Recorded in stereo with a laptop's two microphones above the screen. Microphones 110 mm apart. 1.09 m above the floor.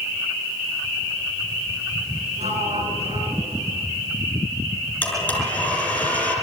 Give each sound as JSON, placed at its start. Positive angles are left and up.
{"t": 2.4, "sound": "a sliding door", "side_deg": -75, "distance_m": 6.5}
{"t": 5.0, "sound": "a blender", "side_deg": 10, "distance_m": 6.5}